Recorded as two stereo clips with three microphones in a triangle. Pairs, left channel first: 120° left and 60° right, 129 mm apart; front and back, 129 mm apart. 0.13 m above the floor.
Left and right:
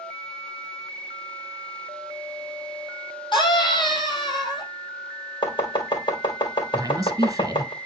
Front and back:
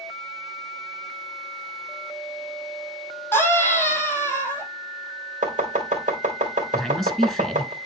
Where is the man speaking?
85° right, 1.6 m.